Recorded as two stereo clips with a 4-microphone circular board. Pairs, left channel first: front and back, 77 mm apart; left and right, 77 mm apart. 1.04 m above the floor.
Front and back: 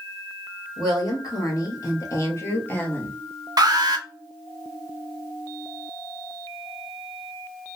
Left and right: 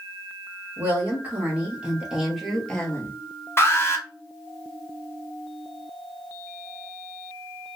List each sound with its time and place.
0.8 s a woman speaking: 30° right, 1.4 m; by 3.2 s 70° left, 0.7 m
3.6 s an alarm: 145° left, 0.6 m